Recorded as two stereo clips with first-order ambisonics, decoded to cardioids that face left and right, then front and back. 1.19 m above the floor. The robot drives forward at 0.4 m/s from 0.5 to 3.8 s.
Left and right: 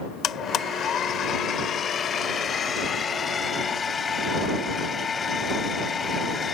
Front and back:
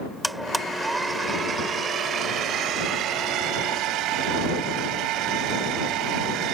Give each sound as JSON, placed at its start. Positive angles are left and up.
{"t": 0.2, "sound": "a blender", "azimuth_deg": 95}